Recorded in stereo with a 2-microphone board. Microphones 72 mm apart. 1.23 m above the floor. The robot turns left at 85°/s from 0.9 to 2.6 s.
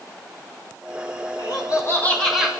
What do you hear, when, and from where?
1.4 s laughter: 80° left, 4.5 m; by 2.5 s 15° right, 4.5 m